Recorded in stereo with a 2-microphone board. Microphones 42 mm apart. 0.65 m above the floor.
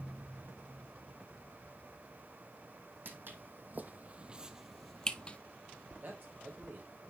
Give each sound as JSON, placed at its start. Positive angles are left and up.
{"t": 3.0, "sound": "footsteps", "side_deg": -60, "distance_m": 1.2}
{"t": 6.0, "sound": "a man speaking", "side_deg": -55, "distance_m": 3.5}